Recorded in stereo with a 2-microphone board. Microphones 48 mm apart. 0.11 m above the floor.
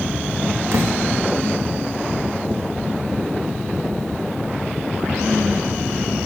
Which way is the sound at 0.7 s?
80° right.